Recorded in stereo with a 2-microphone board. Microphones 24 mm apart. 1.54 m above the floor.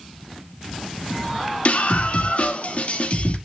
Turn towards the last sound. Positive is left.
turn(degrees=55)  # may be behind; listen again after turning